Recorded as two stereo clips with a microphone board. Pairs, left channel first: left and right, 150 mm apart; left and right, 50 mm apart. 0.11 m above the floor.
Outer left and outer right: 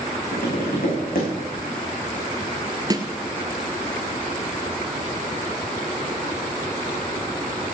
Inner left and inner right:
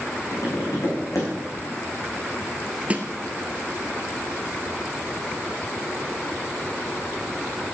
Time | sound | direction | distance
0.3 | tapping | 70° left (ahead or behind) | 6 m
2.9 | a snare drum | 25° right (ahead or behind) | 1.1 m